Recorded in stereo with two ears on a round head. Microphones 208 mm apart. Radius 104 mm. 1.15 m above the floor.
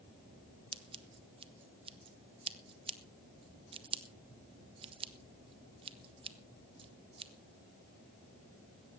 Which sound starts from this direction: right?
Scissors, at 0.7 s.